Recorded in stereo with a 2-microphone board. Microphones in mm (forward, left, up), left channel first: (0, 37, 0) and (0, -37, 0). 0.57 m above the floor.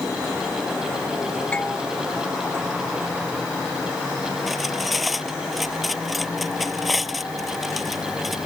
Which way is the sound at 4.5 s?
Centre (ahead or behind).